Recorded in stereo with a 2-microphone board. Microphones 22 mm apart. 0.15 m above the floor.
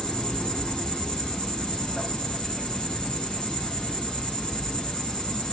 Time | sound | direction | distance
0.0 | an insect | 45° left (ahead or behind) | 2.5 m